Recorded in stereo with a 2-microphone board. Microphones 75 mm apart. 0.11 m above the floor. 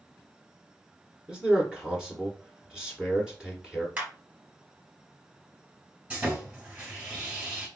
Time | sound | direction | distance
1.3 | a man speaking | 10° right (ahead or behind) | 1.2 m
4.0 | a clap | 25° right (ahead or behind) | 1.4 m
6.1 | sawing | 20° right (ahead or behind) | 2 m